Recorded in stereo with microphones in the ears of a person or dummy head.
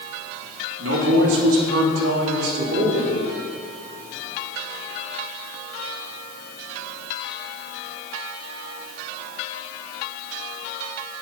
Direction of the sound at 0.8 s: 80° right.